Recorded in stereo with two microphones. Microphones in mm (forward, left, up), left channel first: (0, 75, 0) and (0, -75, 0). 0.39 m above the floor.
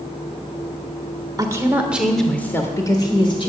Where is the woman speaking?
25° right (ahead or behind), 1.4 m; by 3.5 s 40° left (ahead or behind), 1.7 m.